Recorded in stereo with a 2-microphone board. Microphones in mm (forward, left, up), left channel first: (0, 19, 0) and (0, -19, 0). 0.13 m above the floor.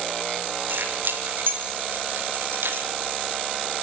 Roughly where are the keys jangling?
Right.